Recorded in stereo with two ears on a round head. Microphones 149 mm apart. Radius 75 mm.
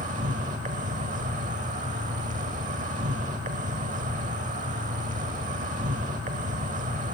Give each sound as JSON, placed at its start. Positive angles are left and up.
{"t": 0.0, "sound": "an insect", "side_deg": -45, "distance_m": 0.9}